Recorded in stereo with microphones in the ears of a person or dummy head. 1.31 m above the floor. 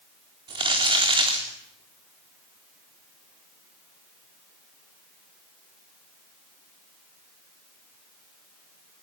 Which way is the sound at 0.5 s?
25° right (ahead or behind).